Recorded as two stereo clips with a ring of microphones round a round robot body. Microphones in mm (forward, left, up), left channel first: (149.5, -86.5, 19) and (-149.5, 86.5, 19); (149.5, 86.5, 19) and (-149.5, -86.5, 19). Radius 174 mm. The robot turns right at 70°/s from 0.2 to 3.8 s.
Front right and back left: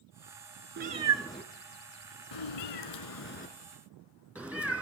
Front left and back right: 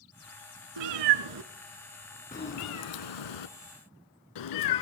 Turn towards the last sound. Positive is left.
turn(degrees=65)